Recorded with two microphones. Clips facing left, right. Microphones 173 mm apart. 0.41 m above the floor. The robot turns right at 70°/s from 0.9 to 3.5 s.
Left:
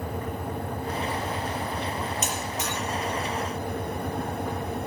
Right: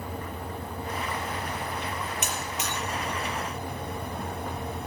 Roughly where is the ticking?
No ticking in this recording.